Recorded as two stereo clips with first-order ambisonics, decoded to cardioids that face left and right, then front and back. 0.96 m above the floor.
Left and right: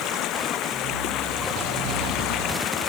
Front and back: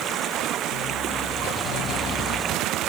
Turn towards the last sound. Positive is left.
turn(degrees=130)